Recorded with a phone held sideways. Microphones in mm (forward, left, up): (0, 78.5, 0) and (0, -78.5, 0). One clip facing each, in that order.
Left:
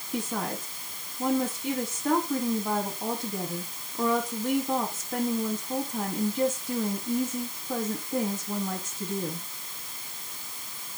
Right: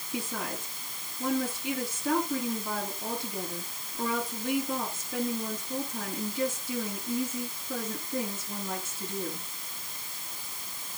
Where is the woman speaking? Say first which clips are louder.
Left 4 dB; 85° left, 7 m.